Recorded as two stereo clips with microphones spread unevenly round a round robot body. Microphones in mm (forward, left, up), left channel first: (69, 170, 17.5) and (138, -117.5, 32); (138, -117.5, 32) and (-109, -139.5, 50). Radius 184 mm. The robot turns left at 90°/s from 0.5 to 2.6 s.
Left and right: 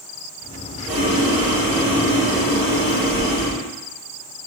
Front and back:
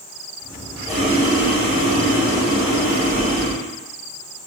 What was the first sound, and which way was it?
Boiling, 100° right.